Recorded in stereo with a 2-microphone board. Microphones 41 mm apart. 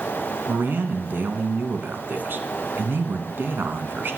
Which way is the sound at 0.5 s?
60° right (ahead or behind).